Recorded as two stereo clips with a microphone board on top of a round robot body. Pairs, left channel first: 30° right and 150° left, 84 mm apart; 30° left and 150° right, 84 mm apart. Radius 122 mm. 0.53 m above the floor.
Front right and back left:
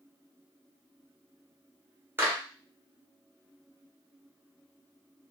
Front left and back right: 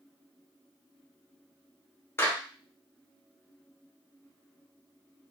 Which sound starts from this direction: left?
A clap, at 2.2 s.